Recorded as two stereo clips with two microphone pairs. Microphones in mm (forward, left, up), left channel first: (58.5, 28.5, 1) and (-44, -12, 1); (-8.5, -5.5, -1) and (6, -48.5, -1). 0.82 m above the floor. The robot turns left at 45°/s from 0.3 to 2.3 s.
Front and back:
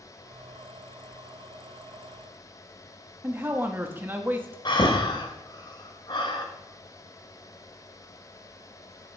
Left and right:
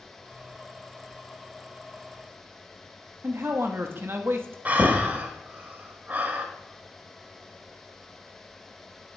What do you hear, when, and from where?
3.2 s a man speaking: 90° right, 1.1 m
4.7 s breathing: 20° right, 1.2 m